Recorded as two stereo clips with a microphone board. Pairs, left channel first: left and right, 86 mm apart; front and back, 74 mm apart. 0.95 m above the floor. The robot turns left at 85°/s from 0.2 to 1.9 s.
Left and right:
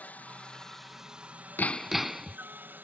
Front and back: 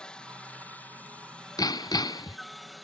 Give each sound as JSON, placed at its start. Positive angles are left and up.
{"t": 0.0, "sound": "a helicopter", "azimuth_deg": 55}
{"t": 1.6, "sound": "hammering", "azimuth_deg": 25}